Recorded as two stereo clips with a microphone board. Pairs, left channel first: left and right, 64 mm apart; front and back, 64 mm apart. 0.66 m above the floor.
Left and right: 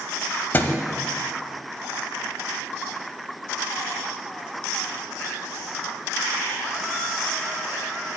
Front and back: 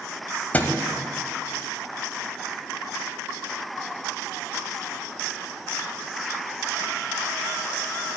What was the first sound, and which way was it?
A thud, 50° left.